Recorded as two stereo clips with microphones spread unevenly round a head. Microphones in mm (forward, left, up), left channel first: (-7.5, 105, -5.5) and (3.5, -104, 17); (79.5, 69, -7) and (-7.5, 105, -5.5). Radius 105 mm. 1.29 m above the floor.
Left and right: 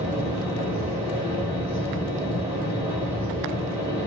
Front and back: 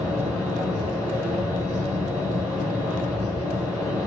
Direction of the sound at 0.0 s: 170° right.